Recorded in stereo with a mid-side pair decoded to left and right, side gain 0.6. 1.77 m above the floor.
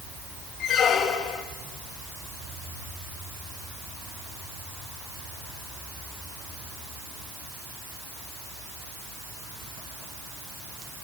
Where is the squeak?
55° left, 2 m.